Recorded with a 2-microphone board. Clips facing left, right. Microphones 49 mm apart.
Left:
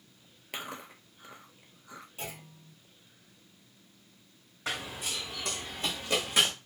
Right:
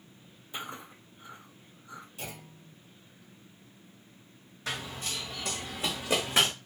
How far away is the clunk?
About 1.3 m.